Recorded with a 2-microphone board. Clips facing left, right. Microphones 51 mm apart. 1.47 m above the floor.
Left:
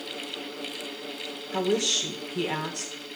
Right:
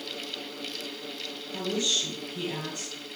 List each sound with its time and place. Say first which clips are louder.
1.5 s a woman speaking: left 4 dB; 75° left (ahead or behind), 1.1 m